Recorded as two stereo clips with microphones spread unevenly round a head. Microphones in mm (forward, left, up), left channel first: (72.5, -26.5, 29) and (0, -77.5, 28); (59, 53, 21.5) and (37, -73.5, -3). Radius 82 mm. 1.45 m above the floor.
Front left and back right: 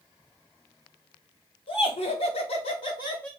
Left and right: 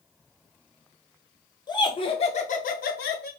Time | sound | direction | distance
1.7 | laughter | 20° left | 1.5 m